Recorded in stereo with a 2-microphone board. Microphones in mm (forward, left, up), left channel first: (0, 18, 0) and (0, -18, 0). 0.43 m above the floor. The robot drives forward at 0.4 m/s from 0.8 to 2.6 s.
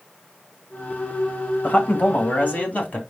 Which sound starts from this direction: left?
A man speaking, at 1.6 s.